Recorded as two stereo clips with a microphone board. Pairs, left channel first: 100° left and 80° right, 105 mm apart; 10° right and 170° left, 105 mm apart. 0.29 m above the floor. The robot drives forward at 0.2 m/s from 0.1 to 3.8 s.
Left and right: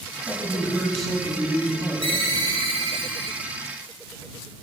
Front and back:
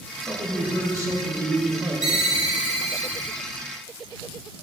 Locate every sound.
0.3 s a man speaking: 175° right, 1.2 m
2.0 s a ringtone: 105° right, 1.3 m; by 3.4 s 115° right, 1.4 m